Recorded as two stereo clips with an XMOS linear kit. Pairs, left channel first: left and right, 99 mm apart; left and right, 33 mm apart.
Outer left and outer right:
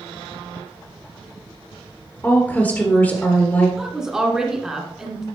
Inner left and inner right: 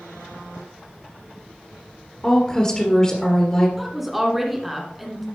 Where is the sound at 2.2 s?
20° left (ahead or behind), 1.5 m.